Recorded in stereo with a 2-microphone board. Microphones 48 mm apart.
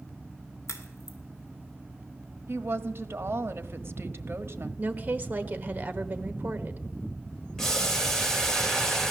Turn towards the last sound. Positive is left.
turn(degrees=10)  # may be behind; listen again after turning